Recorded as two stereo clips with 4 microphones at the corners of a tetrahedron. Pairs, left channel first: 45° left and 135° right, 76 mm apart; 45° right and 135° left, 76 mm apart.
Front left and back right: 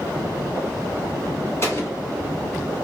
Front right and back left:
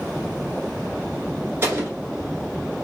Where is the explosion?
90° left, 1.2 m.